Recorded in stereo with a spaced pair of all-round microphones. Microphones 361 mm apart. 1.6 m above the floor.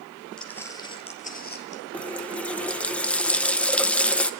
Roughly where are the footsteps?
Centre.